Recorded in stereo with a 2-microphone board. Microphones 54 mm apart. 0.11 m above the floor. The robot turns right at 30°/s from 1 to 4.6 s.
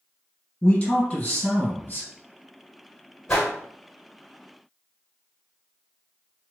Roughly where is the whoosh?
Left.